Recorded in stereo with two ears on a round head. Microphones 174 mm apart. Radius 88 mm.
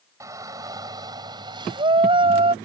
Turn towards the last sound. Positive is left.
turn(degrees=-30)  # may be behind; listen again after turning